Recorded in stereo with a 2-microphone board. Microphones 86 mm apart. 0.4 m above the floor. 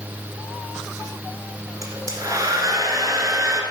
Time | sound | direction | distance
1.8 | a hair dryer | 40° right (ahead or behind) | 2 m